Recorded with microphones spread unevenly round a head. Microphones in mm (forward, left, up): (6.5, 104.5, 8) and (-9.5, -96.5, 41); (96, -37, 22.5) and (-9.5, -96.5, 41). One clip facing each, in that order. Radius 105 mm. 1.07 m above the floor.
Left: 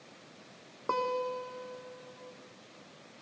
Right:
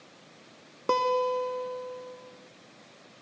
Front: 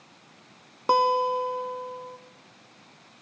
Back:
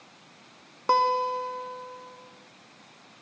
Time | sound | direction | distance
0.9 | a guitar | 50° right | 1.1 m